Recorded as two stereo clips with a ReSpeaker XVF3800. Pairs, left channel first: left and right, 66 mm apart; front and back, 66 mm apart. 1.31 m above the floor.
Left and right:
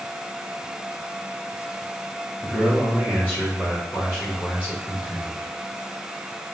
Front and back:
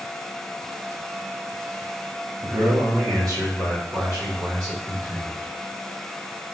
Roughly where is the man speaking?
Behind.